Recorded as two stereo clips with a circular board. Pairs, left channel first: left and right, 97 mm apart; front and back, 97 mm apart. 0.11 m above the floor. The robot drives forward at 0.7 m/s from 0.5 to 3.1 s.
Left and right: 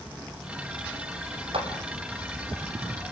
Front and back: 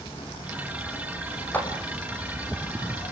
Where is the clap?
70° right, 4.5 m; by 1.7 s 75° right, 4.5 m.